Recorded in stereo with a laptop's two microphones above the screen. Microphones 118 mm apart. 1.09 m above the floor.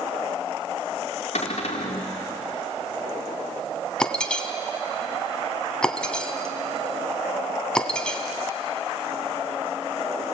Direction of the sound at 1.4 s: 70° left (ahead or behind).